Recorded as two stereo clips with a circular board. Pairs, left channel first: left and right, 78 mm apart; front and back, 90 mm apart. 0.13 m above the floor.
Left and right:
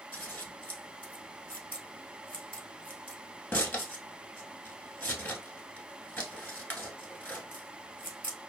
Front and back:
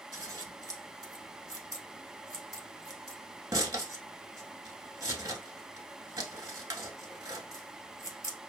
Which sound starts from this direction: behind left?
Scissors, at 0.1 s.